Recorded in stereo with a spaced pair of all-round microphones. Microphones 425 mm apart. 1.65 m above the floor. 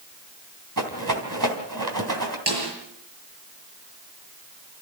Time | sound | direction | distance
0.8 | a rattle | 45° right (ahead or behind) | 3 m
2.5 | a snare drum | 70° right (ahead or behind) | 7.5 m